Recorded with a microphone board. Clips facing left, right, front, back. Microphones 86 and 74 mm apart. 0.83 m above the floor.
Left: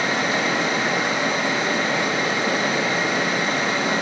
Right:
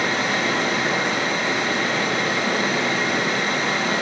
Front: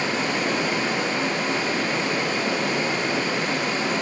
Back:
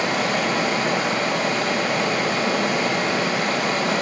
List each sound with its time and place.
0.0 s running water: 165° left, 3 m